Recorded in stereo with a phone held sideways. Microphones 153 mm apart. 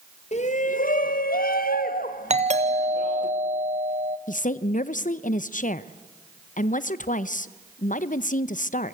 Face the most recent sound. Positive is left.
turn(degrees=55)  # may be behind; listen again after turning